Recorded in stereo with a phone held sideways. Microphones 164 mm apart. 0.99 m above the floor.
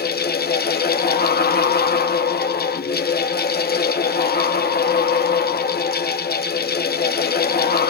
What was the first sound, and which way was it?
A fan, 75° left (ahead or behind).